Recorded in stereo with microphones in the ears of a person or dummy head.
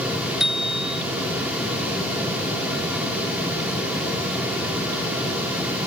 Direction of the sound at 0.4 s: Centre (ahead or behind).